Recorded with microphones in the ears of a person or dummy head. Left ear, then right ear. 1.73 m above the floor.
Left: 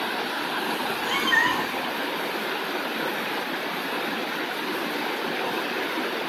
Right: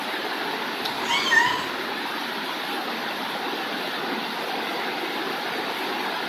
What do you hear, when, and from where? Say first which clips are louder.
0.8 s a cat meowing: right 4 dB; 20° right (ahead or behind), 3 m